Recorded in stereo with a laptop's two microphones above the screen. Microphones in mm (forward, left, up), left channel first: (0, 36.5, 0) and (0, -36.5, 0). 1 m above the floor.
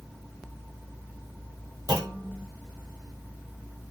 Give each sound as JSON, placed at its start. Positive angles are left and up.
{"t": 1.9, "sound": "a clunk", "side_deg": -60, "distance_m": 3.5}